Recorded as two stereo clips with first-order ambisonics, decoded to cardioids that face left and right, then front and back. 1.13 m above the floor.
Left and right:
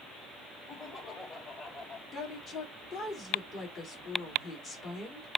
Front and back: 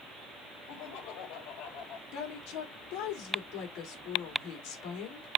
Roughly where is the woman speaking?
Ahead left.